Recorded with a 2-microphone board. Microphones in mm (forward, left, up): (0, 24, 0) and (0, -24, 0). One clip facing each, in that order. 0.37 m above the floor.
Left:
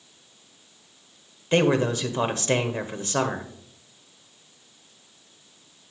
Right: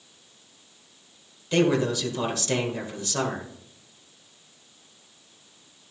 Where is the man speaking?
35° left (ahead or behind), 1.3 m.